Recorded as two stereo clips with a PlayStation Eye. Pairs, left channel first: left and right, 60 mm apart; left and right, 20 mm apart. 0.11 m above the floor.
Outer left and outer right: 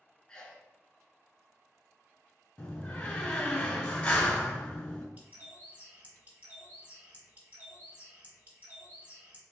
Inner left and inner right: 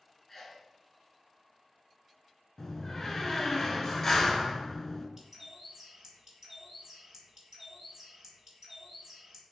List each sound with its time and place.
0.3 s a sneeze: 15° left (ahead or behind), 1.5 m
2.6 s a door slam: 20° left (ahead or behind), 1.0 m
5.2 s a bird: 30° right (ahead or behind), 1.7 m